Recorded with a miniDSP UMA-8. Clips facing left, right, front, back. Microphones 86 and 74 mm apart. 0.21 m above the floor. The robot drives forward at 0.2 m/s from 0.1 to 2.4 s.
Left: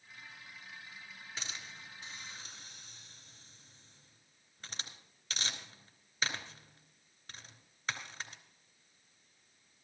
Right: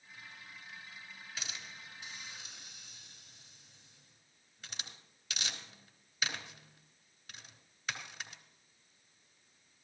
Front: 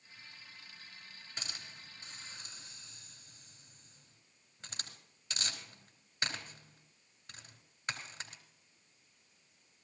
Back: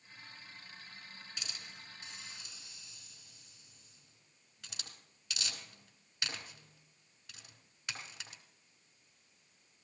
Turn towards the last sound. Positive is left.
turn(degrees=50)